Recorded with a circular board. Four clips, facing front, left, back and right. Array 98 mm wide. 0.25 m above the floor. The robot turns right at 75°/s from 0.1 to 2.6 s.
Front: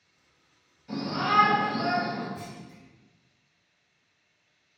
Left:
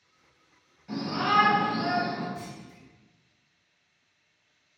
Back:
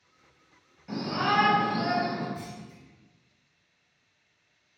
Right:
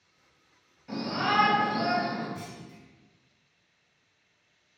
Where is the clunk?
90° right, 2.0 m; by 2.8 s 70° right, 2.0 m.